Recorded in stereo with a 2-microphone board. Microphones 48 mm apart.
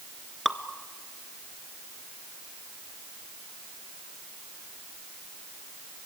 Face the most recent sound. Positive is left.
turn(degrees=5)  # may be behind; listen again after turning